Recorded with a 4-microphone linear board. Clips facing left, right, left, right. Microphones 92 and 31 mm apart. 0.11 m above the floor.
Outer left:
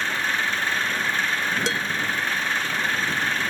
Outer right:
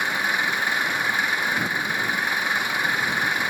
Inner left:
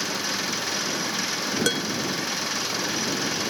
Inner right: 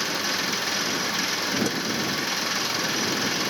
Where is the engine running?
10° right (ahead or behind).